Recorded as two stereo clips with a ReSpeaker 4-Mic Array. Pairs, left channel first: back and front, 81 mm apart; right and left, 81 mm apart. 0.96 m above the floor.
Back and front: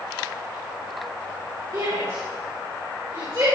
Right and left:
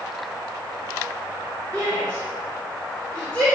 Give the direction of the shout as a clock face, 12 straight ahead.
1 o'clock.